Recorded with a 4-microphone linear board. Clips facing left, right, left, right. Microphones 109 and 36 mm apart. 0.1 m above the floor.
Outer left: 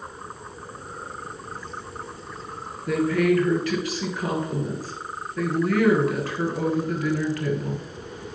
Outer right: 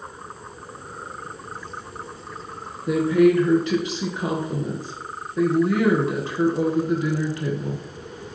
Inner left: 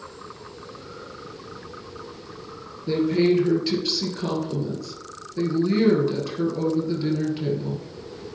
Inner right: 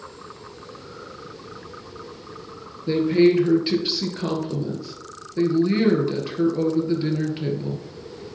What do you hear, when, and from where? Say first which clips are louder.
2.9 s a woman speaking: outer right 4 dB, inner right 3 dB; 20° right (ahead or behind), 2 m